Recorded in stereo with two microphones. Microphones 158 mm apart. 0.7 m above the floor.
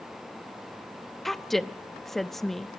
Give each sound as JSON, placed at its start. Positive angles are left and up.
{"t": 1.2, "sound": "a woman speaking", "side_deg": 0, "distance_m": 0.6}